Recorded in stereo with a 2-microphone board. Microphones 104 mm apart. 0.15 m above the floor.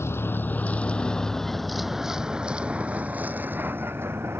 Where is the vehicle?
25° left (ahead or behind); by 4.4 s 25° right (ahead or behind).